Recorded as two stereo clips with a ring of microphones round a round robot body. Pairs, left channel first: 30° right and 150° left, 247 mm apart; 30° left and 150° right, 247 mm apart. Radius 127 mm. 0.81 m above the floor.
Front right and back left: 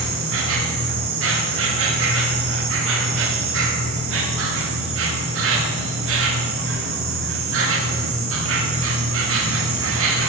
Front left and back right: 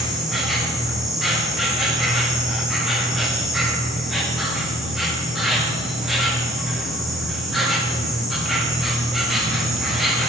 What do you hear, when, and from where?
0.0 s an insect: 120° left, 1.1 m